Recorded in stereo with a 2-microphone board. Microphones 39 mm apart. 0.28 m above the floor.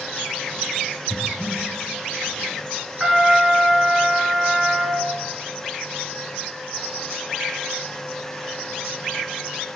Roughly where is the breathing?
Centre.